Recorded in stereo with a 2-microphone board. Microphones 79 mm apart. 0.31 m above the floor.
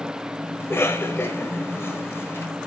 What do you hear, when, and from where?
0.6 s a cough: 30° left (ahead or behind), 1.4 m